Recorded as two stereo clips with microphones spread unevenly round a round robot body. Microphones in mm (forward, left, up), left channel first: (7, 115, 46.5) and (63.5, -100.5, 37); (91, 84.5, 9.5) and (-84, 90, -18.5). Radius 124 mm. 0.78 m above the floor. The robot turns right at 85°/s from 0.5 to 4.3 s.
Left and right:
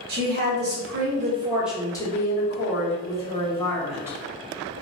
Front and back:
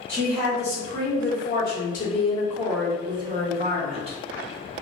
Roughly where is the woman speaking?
Right.